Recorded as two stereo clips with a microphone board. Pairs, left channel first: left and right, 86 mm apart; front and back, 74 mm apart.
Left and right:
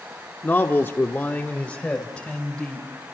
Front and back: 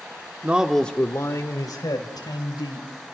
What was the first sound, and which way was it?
A man speaking, 135° left.